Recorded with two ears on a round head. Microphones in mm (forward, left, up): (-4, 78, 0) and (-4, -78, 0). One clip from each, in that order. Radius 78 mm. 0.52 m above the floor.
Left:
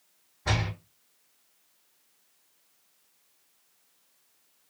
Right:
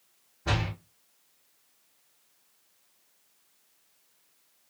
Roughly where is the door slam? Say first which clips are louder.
Left 1 dB; left.